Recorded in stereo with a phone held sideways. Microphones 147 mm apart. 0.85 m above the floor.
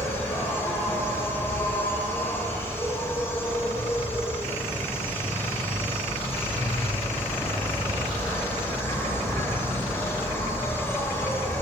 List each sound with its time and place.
0.0 s an insect: 15° left (ahead or behind), 4 m